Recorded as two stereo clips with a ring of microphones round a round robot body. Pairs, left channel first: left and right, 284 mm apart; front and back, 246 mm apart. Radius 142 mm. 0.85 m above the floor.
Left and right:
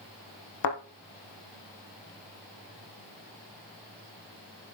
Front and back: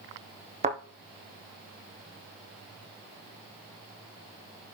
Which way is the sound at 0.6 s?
115° left.